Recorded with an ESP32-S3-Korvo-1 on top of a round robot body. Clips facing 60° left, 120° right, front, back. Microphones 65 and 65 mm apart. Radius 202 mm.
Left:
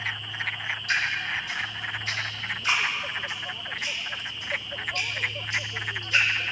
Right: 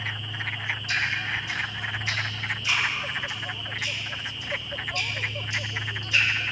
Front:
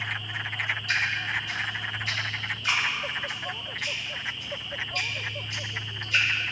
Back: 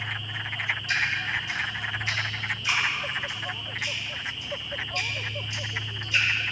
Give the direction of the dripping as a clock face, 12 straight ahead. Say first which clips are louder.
Left 1 dB, back 1 dB; 11 o'clock.